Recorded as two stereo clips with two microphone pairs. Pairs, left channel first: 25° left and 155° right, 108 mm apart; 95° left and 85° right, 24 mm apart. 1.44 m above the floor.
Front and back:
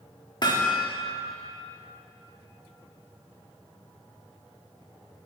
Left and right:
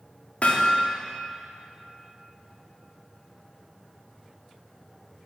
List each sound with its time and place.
0.4 s hammering: 70° left, 1.9 m